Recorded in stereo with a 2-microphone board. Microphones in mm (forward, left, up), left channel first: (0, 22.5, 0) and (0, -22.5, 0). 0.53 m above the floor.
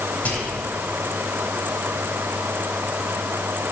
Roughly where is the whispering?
Left.